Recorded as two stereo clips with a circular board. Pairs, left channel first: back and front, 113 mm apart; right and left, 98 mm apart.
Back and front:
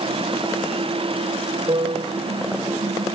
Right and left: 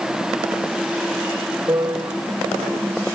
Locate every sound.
1.7 s a piano: 40° left